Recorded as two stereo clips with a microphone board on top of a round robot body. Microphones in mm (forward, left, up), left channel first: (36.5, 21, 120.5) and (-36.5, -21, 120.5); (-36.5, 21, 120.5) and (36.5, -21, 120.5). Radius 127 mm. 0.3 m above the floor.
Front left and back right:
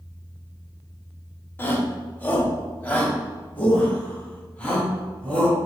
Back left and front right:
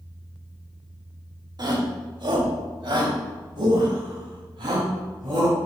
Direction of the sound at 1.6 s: 30° right.